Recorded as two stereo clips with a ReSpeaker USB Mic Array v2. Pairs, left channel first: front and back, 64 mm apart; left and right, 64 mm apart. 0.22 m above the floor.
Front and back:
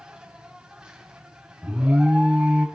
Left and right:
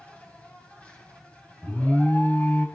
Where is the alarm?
130° left, 1.7 m.